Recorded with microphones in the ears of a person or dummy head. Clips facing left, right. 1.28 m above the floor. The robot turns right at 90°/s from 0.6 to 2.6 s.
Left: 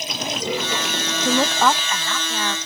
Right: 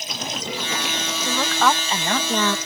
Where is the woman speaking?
135° left; by 2.6 s 105° right.